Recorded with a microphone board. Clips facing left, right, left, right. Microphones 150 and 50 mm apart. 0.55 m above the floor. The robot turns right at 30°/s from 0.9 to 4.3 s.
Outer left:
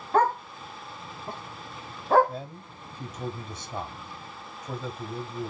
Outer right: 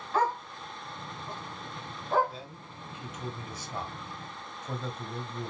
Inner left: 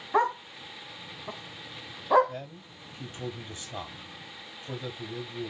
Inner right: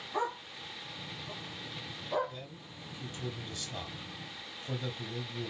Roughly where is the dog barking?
Left.